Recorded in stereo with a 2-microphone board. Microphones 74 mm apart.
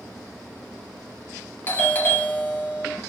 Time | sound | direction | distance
1.7 | a doorbell | 25° left (ahead or behind) | 0.9 m